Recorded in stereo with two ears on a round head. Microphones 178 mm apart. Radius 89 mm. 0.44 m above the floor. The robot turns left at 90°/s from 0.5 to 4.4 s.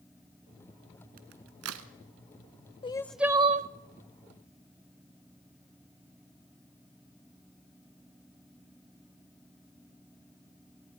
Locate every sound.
1.2 s a crack: 45° right (ahead or behind), 1.4 m; by 1.9 s 70° right (ahead or behind), 1.4 m
2.8 s crying: 30° left, 0.6 m; by 3.7 s 50° right, 0.6 m